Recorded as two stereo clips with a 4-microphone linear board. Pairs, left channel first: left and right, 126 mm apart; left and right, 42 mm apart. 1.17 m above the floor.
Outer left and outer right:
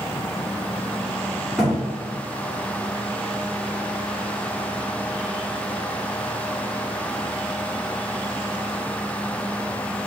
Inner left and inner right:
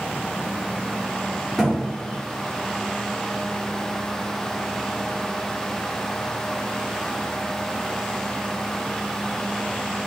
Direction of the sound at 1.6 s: 5° right (ahead or behind).